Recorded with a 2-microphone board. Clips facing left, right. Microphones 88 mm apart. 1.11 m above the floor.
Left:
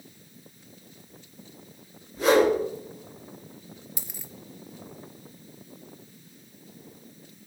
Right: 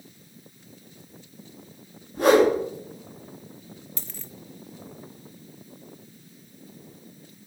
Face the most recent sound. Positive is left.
turn(degrees=15)  # may be behind; listen again after turning